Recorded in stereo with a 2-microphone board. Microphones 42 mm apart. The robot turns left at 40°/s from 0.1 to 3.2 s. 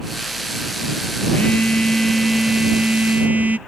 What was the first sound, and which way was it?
A phone buzzing, 40° left.